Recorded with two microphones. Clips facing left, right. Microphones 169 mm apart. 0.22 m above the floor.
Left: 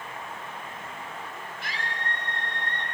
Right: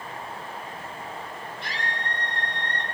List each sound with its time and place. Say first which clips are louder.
1.6 s a scream: right 1 dB; 5° left (ahead or behind), 8.5 m; by 2.9 s centre (ahead or behind), 7.5 m